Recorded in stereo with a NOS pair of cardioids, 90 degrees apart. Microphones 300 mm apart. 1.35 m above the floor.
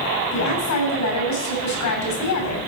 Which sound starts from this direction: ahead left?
A woman speaking, at 0.3 s.